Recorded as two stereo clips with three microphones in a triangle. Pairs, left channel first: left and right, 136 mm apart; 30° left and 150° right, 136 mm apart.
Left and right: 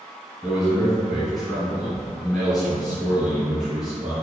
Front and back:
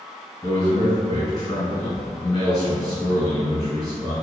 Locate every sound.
0.4 s a man speaking: 5° right, 1.4 m